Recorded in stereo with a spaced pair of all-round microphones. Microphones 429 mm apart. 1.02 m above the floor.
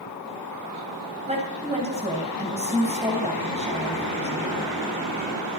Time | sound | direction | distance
1.3 | a woman speaking | 15° right (ahead or behind) | 5.5 m